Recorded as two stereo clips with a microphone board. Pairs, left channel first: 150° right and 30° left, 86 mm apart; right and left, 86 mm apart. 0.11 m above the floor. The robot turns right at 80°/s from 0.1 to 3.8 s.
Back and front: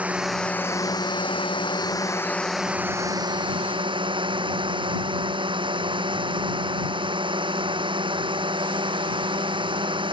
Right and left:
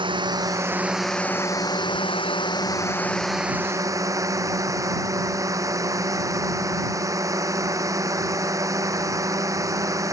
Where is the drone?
105° left; by 10.1 s 40° left.